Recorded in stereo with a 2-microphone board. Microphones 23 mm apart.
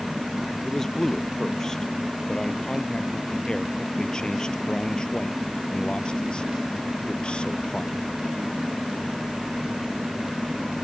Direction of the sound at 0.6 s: 25° left (ahead or behind).